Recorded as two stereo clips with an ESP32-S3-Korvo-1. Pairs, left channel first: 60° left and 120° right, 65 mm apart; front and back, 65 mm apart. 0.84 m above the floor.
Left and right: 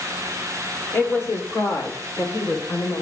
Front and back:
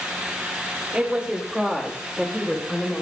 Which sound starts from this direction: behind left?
A woman speaking, at 0.9 s.